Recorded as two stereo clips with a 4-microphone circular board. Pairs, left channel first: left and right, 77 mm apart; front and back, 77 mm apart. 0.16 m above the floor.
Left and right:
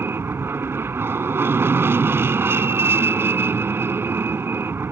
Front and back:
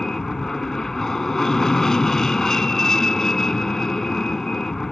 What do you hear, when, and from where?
0.0 s an aircraft: 80° right